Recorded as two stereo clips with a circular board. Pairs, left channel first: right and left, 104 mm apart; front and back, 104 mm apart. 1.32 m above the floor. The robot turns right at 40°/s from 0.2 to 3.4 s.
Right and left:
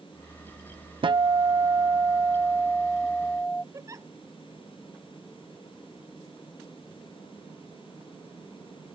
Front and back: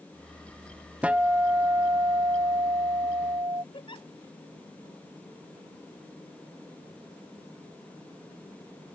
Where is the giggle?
35° left.